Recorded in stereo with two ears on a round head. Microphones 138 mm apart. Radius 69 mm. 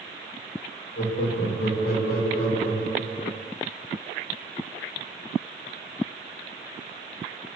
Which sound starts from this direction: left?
Laughter, at 1.0 s.